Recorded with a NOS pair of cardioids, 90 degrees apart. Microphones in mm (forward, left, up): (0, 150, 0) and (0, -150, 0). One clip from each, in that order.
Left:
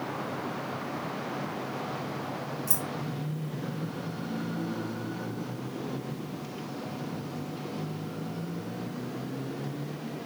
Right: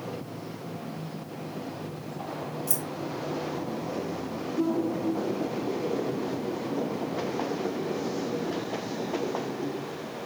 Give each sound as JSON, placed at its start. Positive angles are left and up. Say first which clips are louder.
{"t": 2.7, "sound": "keys jangling", "louder": "right 1 dB", "azimuth_deg": 0, "distance_m": 1.2}